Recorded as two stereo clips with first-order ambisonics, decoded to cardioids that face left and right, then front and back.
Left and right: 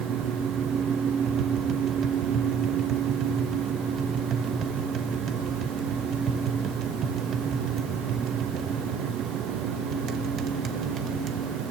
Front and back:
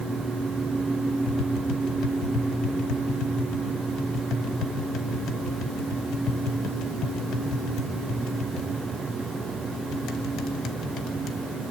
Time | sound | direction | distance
1.3 | tapping | 40° right | 1.4 m